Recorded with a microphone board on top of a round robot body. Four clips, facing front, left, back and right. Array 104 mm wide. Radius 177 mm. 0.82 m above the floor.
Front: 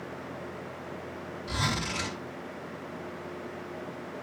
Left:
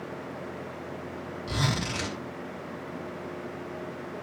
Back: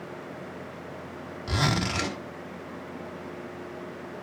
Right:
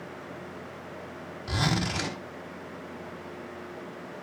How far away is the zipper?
About 3.5 m.